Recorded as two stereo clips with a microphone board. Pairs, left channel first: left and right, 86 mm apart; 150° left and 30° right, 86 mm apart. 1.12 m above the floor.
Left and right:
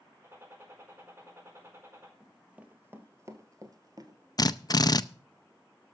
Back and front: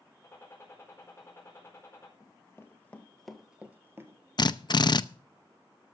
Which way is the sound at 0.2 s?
150° right.